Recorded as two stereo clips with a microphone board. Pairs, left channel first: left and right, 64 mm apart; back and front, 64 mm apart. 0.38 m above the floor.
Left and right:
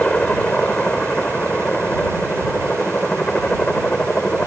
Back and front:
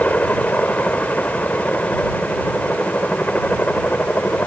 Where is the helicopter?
140° left.